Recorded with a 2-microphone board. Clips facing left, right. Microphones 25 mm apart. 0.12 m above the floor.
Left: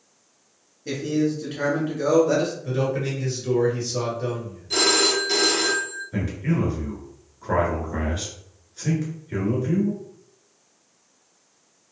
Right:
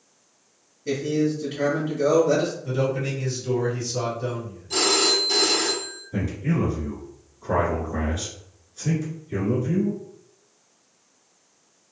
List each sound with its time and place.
0.8 s a man speaking: 15° left (ahead or behind), 1.7 m
2.6 s a man speaking: 40° left (ahead or behind), 1.9 m
4.7 s a phone ringing: 25° left (ahead or behind), 1.0 m
6.1 s a man speaking: 35° left (ahead or behind), 1.4 m